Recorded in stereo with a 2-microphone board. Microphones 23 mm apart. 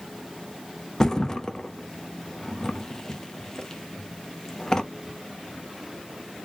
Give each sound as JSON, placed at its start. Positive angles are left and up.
{"t": 1.0, "sound": "a thud", "side_deg": 20, "distance_m": 0.9}